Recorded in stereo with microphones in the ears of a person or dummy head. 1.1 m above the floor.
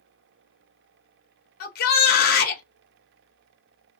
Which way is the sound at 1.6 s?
50° left (ahead or behind).